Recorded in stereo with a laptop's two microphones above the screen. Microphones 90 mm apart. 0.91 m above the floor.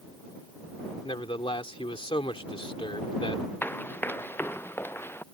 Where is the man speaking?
80° left.